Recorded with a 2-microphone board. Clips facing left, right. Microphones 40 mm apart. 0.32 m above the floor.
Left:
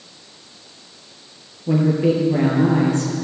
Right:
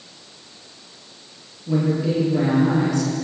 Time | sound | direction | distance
1.7 | a woman speaking | 40° left (ahead or behind) | 8 m